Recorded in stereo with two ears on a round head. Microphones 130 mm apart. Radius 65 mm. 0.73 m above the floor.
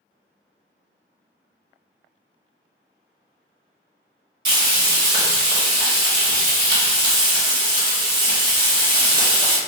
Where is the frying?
30° right (ahead or behind), 1.0 m.